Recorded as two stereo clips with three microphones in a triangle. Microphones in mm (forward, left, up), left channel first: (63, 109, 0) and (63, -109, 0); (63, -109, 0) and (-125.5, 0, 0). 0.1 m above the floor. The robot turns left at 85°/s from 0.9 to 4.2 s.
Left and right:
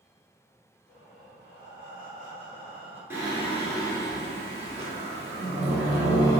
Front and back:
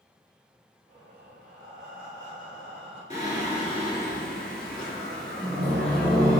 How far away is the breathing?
About 1.9 m.